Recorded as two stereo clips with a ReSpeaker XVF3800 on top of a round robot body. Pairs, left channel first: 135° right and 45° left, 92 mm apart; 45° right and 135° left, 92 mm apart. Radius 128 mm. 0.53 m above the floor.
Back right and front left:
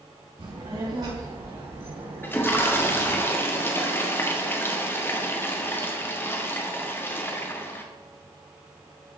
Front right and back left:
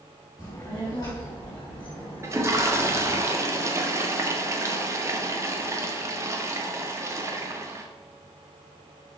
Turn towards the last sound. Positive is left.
turn(degrees=170)